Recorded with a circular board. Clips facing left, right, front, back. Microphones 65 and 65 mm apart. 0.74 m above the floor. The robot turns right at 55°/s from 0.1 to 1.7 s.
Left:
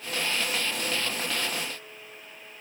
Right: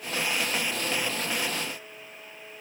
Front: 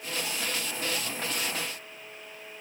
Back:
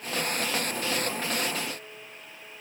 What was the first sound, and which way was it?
Only background noise.